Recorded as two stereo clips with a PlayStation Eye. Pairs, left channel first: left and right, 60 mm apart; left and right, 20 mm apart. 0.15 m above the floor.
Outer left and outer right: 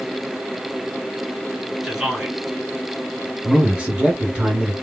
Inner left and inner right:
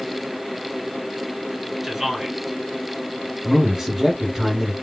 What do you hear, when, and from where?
1.8 s a man speaking: 5° right (ahead or behind), 1.8 m
3.4 s a man speaking: 20° right (ahead or behind), 1.2 m